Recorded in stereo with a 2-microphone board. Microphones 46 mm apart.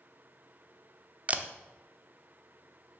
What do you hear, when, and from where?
1.3 s a camera shutter: 30° right (ahead or behind), 0.7 m